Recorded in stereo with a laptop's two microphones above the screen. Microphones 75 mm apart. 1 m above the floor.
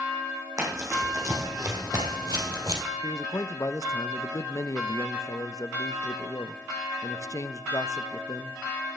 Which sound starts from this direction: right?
Running footsteps, at 0.6 s.